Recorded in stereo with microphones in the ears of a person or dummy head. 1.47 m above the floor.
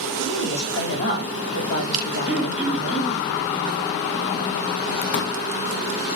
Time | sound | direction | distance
0.2 | a woman speaking | 65° left (ahead or behind) | 4.5 m
2.3 | throat clearing | centre (ahead or behind) | 1.4 m
5.1 | a pop | 45° left (ahead or behind) | 0.8 m